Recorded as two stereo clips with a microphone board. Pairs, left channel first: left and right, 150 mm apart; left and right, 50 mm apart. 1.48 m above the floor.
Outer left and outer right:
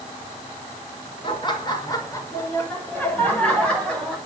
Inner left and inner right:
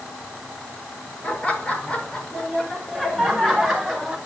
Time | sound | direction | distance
1.2 | laughter | 35° left (ahead or behind) | 5 m